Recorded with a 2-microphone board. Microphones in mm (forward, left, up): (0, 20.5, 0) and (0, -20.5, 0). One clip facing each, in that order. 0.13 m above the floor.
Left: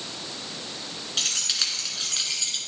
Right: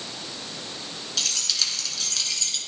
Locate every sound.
1.2 s keys jangling: 35° left (ahead or behind), 1.3 m; by 2.6 s 15° left (ahead or behind), 1.3 m